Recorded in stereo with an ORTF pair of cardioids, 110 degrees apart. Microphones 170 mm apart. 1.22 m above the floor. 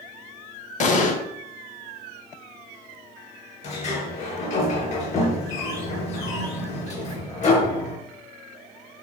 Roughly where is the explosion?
Ahead left.